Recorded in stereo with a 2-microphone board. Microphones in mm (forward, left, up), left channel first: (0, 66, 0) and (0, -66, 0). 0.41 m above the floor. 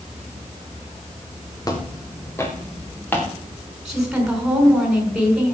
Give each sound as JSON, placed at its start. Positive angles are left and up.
{"t": 1.6, "sound": "footsteps", "side_deg": 25, "distance_m": 3.5}
{"t": 3.9, "sound": "a woman speaking", "side_deg": -5, "distance_m": 5.5}